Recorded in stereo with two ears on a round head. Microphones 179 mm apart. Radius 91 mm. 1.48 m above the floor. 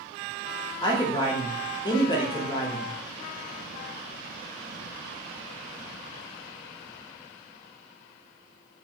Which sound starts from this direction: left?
A man speaking, at 0.8 s.